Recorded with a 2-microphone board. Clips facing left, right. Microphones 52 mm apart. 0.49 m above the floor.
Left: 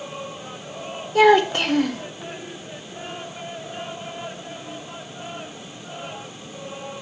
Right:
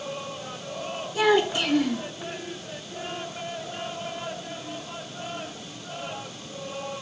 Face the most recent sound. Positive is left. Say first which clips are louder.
# left 7 dB
turn(degrees=50)  # may be behind; listen again after turning